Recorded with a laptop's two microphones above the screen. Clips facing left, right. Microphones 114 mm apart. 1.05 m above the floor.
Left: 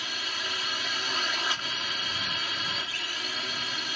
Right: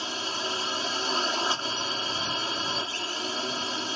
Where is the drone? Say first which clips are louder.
Right 5 dB; 30° right (ahead or behind).